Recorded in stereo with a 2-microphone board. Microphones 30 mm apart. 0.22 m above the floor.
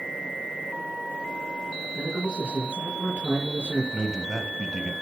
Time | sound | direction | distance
1.9 | a man speaking | 50° right (ahead or behind) | 5 m
3.9 | a man speaking | 20° right (ahead or behind) | 1.3 m